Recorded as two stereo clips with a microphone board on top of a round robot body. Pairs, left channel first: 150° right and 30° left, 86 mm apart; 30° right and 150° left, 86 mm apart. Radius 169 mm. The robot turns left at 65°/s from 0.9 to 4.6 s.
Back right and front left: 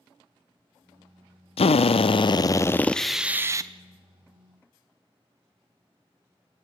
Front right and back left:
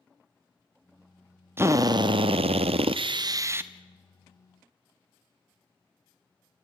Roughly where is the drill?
Behind right.